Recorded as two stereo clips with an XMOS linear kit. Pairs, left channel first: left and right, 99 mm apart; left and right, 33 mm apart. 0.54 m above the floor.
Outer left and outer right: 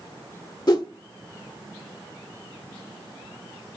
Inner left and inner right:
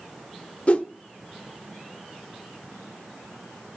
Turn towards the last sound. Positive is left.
turn(degrees=45)  # may be behind; listen again after turning